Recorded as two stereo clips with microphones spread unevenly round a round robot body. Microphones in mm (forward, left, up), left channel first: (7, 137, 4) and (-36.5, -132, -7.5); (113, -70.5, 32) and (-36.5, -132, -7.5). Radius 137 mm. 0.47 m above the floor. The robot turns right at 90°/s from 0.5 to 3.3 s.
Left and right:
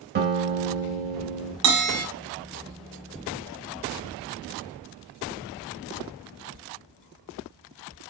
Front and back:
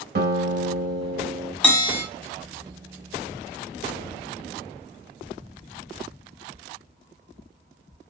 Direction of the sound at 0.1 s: 155° right.